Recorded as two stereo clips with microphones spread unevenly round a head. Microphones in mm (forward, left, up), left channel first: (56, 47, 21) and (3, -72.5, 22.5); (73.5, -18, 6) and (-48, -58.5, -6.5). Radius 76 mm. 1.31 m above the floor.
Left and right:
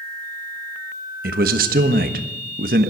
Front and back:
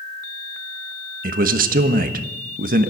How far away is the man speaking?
About 1.2 m.